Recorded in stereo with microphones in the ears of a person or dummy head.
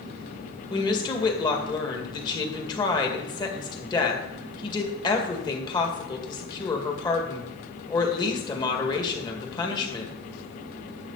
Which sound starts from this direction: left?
A woman speaking, at 0.7 s.